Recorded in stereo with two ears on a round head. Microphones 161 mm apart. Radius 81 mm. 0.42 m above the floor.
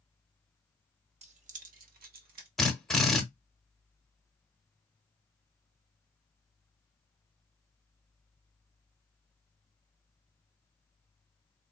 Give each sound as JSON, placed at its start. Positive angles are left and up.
{"t": 1.2, "sound": "keys jangling", "side_deg": -35, "distance_m": 0.8}
{"t": 2.6, "sound": "a drill", "side_deg": 5, "distance_m": 0.9}